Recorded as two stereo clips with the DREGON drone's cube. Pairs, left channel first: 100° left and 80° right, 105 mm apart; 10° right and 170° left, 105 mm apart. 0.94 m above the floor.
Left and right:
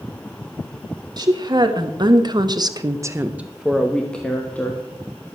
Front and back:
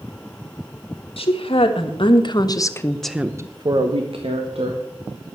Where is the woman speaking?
30° right, 2 m; by 4.8 s 175° left, 1.8 m.